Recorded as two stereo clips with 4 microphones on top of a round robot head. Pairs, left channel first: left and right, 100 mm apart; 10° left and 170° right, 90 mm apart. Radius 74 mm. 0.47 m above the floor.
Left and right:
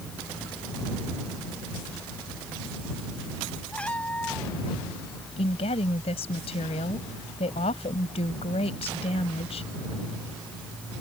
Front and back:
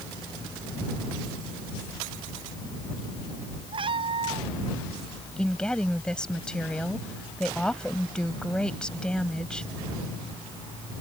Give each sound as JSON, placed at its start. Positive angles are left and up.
{"t": 3.7, "sound": "a cat meowing", "azimuth_deg": 170}
{"t": 5.4, "sound": "a woman speaking", "azimuth_deg": 90}